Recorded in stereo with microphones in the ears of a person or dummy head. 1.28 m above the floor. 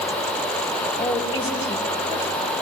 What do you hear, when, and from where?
1.0 s a woman speaking: 30° left (ahead or behind), 4.5 m